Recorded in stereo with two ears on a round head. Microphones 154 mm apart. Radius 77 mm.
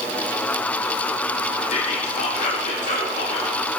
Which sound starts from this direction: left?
Whispering, at 1.7 s.